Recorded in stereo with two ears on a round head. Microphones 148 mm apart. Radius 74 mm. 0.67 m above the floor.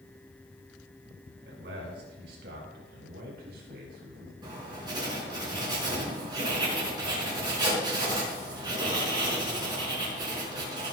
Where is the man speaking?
80° right, 5.5 m; by 4.3 s 60° right (ahead or behind), 5 m.